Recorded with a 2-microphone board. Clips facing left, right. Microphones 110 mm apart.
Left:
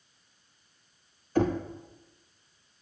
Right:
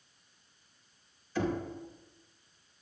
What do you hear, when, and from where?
1.4 s knocking: 50° left (ahead or behind), 0.6 m